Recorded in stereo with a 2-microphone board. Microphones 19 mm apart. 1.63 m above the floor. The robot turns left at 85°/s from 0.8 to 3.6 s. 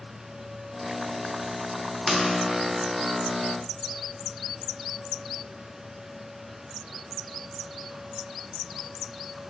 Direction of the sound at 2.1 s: 5° right (ahead or behind).